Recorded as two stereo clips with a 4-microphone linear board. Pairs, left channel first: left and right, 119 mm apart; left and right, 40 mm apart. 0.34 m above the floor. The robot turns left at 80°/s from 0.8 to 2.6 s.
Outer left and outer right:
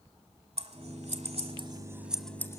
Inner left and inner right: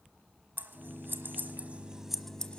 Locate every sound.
0.6 s scissors: 60° right (ahead or behind), 1.0 m; by 2.6 s 30° left (ahead or behind), 1.0 m